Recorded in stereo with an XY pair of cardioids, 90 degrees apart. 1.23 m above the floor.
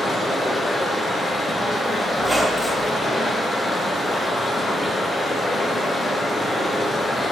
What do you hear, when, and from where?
0.0 s running water: 30° left, 0.9 m
2.2 s a squeak: 5° left, 1.4 m